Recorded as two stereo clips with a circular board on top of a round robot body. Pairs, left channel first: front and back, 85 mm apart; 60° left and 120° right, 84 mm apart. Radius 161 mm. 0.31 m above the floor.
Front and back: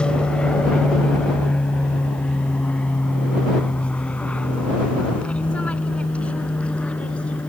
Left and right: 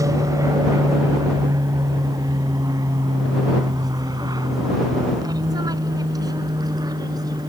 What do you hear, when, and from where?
0.0 s an aircraft: 75° right